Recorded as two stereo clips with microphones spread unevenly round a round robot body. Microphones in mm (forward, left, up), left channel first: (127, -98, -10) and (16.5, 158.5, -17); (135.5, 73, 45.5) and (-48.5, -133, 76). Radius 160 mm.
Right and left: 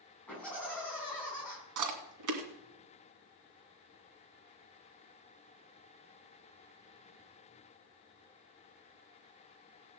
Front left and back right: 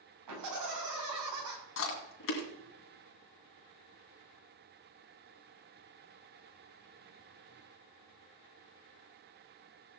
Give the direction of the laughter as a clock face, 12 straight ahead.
5 o'clock.